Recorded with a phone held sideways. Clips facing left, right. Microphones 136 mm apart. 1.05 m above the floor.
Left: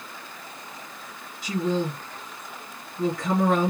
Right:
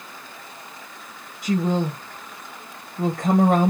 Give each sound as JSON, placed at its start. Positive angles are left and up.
{"t": 1.4, "sound": "a woman speaking", "side_deg": -45, "distance_m": 0.9}